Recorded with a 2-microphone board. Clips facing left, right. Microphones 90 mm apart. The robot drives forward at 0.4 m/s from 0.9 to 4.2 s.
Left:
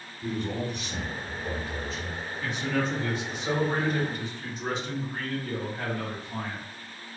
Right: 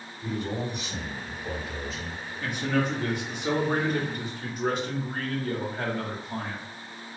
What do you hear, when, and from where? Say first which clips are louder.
0.2 s a man speaking: even; centre (ahead or behind), 1.8 m; by 2.2 s 5° left (ahead or behind), 1.3 m
2.4 s a man speaking: right 2 dB; 50° right (ahead or behind), 1.0 m